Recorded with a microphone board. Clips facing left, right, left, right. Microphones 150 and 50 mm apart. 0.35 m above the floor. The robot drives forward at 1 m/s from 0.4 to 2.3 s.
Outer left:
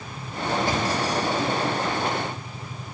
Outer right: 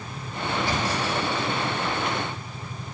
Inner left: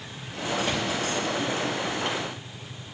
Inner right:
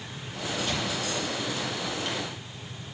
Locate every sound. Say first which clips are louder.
0.6 s a thud: outer left 2 dB, inner left 3 dB; 55° left (ahead or behind), 3 m; by 2.2 s 35° left (ahead or behind), 4 m